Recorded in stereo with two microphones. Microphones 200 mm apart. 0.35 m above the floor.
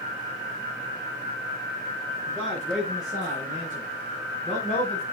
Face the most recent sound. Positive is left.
turn(degrees=35)  # may be behind; listen again after turning